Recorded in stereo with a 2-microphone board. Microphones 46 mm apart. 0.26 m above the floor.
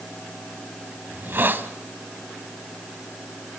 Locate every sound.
1.1 s a hiss: 50° right (ahead or behind), 1.0 m